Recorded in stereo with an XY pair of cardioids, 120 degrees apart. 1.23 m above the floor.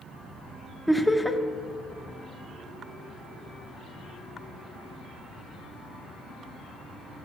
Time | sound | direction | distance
0.9 | laughter | 5° left | 0.6 m